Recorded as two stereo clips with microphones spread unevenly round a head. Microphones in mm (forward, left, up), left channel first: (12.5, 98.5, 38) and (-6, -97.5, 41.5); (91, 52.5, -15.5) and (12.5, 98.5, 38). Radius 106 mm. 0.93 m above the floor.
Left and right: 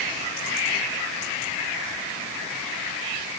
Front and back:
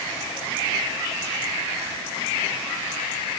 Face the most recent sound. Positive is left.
No sound to turn to.